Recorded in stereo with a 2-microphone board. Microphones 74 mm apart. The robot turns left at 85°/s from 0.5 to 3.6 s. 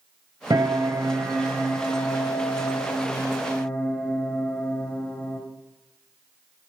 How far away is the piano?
About 3.5 m.